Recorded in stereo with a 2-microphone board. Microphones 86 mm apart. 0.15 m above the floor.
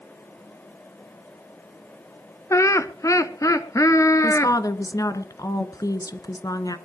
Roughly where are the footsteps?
I don't hear footsteps.